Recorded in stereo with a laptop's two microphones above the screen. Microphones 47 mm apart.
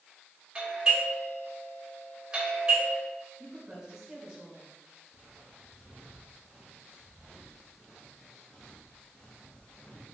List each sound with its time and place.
0.6 s a doorbell: 15° right (ahead or behind), 3 m
3.4 s a woman speaking: 15° right (ahead or behind), 3.5 m
5.1 s footsteps: 25° right (ahead or behind), 3 m; by 10.2 s 35° left (ahead or behind), 2 m